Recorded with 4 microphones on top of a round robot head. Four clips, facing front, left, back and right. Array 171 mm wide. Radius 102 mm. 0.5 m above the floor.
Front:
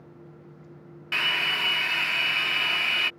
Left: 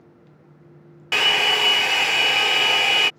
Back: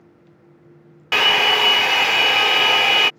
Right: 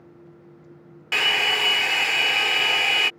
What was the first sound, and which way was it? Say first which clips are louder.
A hair dryer: left 3 dB, back 12 dB; 170° left.